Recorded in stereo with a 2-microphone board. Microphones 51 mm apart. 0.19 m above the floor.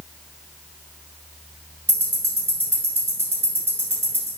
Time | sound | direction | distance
1.9 | ticking | 50° right (ahead or behind) | 1.5 m